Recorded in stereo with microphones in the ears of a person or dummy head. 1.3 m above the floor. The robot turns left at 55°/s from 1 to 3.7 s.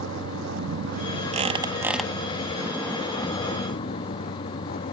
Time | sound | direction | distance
0.0 | a vehicle | 75° right | ?
1.3 | a squeak | 140° right | ?